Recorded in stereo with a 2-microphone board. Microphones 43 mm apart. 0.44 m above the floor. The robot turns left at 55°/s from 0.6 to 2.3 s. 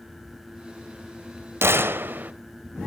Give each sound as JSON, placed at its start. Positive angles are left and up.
{"t": 1.6, "sound": "a gunshot", "azimuth_deg": -100, "distance_m": 0.8}